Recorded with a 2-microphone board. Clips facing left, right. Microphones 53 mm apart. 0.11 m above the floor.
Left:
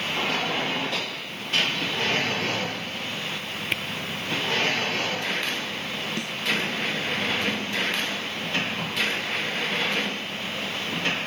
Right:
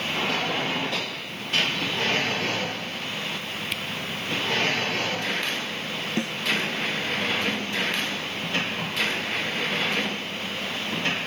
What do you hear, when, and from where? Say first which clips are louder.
3.7 s a camera shutter: left 6 dB; 30° left (ahead or behind)
6.2 s a snare drum: right 3 dB; 30° right (ahead or behind)